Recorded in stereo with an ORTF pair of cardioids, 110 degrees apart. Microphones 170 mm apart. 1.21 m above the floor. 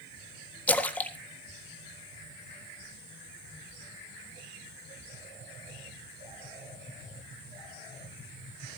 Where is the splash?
10° left, 1.6 m.